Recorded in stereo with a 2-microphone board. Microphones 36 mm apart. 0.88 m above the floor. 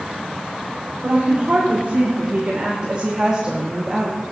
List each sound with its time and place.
1.0 s a woman speaking: 40° right (ahead or behind), 2.5 m; by 4.2 s 10° right (ahead or behind), 1.3 m